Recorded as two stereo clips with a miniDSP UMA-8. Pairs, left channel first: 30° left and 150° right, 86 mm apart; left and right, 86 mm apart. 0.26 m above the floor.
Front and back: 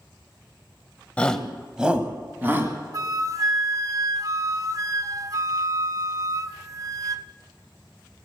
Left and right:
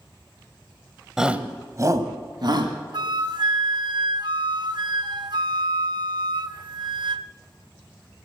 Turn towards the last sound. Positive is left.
turn(degrees=-110)